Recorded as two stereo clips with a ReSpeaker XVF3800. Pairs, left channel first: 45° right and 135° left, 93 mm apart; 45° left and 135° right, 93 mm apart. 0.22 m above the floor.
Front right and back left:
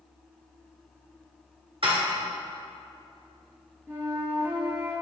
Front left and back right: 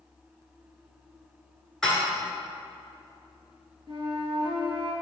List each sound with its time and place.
1.8 s dishes clattering: 130° left, 2.0 m
3.9 s a flute: 160° right, 2.5 m